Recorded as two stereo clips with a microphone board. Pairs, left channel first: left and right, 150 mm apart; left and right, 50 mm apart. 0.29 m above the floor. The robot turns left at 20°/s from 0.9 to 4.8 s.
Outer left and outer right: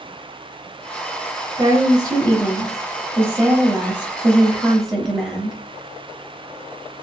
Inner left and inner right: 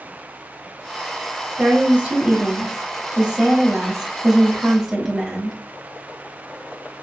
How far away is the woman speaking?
About 1.0 m.